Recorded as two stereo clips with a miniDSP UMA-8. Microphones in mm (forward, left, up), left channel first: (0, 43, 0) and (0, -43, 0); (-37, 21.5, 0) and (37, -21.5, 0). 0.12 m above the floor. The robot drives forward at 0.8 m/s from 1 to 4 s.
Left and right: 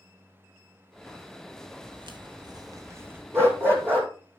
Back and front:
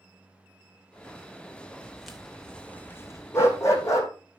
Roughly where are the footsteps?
Behind right.